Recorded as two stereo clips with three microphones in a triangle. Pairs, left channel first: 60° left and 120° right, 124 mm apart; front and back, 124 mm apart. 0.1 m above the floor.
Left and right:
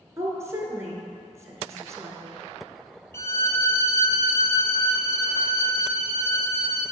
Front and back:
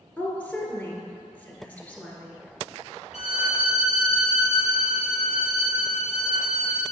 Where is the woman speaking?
70° right, 1.3 m.